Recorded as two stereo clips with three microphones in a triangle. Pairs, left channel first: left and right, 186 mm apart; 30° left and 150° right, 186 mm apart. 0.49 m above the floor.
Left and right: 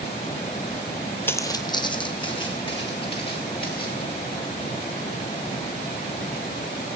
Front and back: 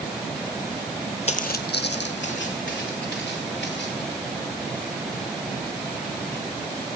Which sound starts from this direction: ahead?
Footsteps, at 1.3 s.